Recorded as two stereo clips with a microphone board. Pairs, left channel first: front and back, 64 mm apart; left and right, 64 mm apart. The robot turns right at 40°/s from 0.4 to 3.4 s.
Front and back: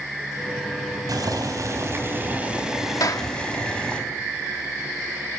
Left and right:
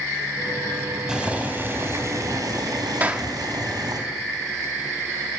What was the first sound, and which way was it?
Boiling, 170° right.